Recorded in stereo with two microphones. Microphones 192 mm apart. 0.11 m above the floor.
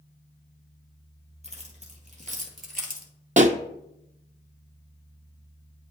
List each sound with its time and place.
1.4 s keys jangling: 35° right (ahead or behind), 1.9 m; by 3.1 s 50° right (ahead or behind), 1.3 m
3.4 s a pop: 40° right (ahead or behind), 0.5 m